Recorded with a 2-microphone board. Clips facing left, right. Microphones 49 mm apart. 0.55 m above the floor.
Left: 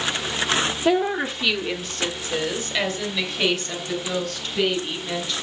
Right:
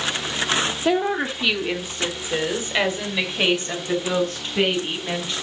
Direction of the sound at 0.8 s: Centre (ahead or behind).